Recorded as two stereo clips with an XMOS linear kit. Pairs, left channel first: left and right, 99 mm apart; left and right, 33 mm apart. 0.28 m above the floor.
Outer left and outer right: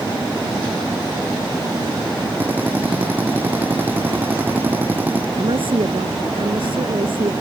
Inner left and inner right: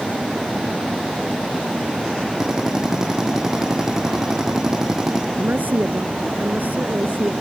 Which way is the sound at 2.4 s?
20° right (ahead or behind).